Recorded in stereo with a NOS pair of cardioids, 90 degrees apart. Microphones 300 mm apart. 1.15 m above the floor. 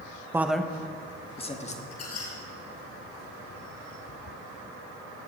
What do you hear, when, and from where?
0.3 s a man speaking: 10° right, 0.9 m; by 1.8 s 25° left, 2.0 m
1.9 s a squeak: 55° left, 5.5 m